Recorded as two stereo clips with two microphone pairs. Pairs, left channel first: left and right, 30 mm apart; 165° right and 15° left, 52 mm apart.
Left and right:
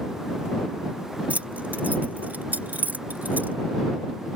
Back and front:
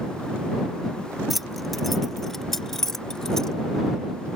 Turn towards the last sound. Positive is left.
turn(degrees=-90)